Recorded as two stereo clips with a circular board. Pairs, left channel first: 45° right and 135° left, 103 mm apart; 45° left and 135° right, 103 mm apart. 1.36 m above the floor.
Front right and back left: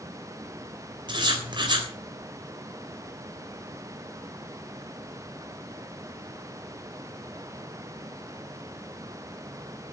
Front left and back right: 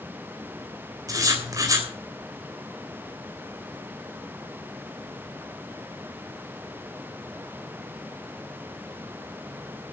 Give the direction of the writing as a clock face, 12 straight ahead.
6 o'clock.